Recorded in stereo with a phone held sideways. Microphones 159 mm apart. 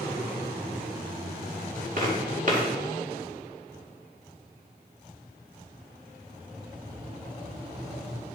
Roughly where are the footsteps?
Right.